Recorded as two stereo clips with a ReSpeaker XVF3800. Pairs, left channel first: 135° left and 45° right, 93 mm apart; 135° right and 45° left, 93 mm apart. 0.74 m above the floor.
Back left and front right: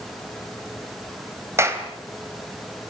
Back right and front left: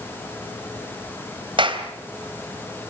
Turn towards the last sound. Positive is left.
turn(degrees=15)